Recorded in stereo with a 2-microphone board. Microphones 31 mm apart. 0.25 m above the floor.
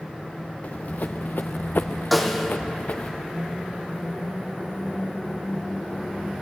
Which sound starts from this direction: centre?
A snare drum, at 2.1 s.